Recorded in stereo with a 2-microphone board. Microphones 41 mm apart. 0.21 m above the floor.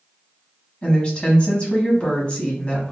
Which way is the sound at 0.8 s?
25° left (ahead or behind).